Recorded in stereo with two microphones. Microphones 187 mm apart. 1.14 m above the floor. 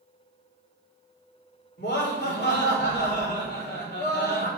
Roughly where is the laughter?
Left.